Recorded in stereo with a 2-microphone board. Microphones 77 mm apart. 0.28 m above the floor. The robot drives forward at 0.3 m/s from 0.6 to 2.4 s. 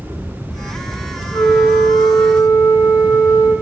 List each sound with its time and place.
1.3 s a flute: 70° left (ahead or behind), 0.7 m; by 3.5 s 60° left (ahead or behind), 0.8 m